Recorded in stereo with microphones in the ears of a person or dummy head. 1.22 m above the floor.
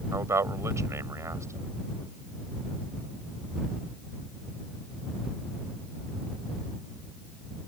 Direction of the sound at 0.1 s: 15° right (ahead or behind).